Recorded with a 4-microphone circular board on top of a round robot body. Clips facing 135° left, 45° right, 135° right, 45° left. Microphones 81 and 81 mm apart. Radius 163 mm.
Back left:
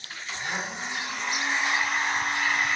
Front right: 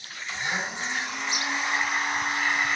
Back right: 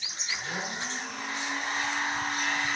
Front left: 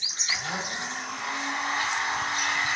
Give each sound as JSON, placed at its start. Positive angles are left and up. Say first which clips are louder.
{"t": 0.3, "sound": "a blender", "louder": "front right 2 dB, front left 3 dB", "azimuth_deg": 45, "distance_m": 3.0}